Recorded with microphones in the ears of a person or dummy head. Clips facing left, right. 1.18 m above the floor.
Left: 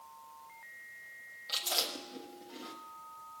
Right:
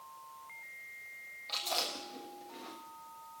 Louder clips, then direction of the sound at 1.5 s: Right 1 dB; 10° left (ahead or behind).